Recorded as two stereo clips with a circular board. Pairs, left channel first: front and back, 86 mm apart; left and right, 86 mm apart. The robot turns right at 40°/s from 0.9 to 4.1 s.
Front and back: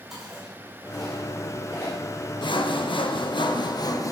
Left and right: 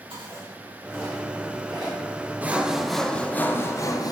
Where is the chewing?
95° right, 4.5 m; by 2.0 s 50° right, 4.5 m.